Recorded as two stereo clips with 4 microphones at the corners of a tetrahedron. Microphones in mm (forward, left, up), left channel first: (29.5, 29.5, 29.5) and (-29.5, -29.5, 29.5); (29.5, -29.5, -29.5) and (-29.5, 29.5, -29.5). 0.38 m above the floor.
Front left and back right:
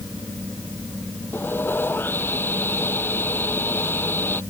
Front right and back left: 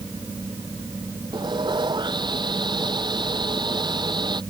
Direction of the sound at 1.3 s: 110° left.